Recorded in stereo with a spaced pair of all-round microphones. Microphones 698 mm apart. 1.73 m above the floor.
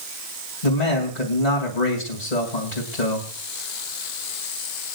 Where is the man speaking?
80° left, 3 m.